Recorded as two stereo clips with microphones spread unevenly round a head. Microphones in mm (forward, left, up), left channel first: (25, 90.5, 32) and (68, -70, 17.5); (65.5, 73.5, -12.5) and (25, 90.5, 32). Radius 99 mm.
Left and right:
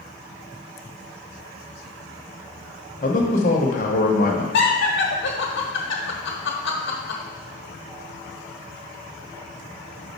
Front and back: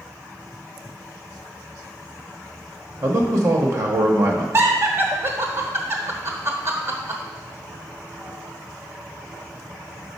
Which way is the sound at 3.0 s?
160° left.